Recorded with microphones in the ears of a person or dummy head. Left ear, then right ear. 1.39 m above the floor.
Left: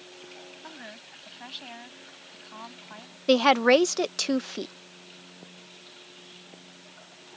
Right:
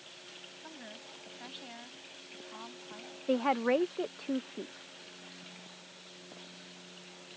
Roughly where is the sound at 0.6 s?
Left.